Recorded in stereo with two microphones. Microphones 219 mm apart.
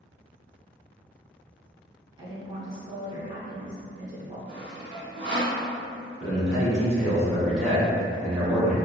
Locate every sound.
2.2 s a woman speaking: 20° right (ahead or behind), 1.2 m; by 4.4 s 15° right (ahead or behind), 1.4 m
4.5 s sawing: 55° right (ahead or behind), 0.6 m
6.2 s a man speaking: 5° right (ahead or behind), 1.1 m